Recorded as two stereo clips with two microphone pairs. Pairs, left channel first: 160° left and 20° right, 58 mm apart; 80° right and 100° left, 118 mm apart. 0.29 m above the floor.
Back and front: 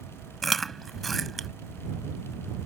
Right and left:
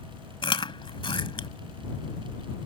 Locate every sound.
0.4 s chewing: 110° right